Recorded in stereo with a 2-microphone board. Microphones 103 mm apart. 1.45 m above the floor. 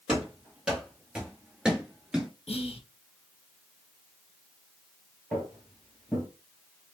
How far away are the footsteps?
About 1.7 m.